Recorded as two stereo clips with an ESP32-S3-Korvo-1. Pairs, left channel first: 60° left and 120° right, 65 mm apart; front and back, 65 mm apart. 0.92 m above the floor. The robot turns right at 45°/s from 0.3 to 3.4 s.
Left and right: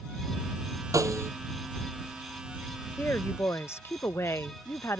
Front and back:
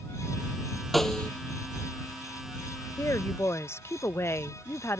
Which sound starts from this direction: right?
A snare drum, at 0.9 s.